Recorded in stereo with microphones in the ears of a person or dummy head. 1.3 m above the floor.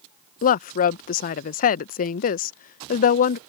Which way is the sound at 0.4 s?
40° left (ahead or behind).